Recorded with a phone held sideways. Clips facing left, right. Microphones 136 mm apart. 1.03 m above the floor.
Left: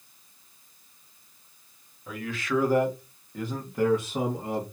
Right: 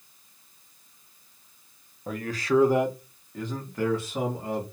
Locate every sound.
2.1 s a man speaking: 50° right (ahead or behind), 0.6 m; by 4.6 s 25° left (ahead or behind), 1.3 m